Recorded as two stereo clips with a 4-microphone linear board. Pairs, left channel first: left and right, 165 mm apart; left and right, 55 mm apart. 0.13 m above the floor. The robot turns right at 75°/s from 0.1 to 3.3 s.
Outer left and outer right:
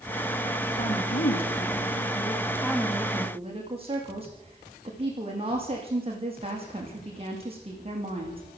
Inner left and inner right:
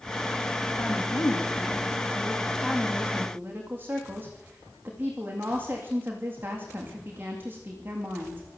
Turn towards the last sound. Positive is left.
turn(degrees=-145)